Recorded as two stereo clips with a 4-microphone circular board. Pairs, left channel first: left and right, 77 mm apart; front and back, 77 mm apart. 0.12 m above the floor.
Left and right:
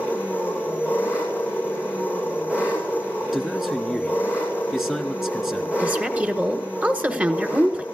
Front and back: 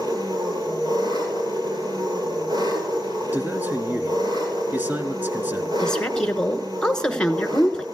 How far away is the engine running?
About 8 m.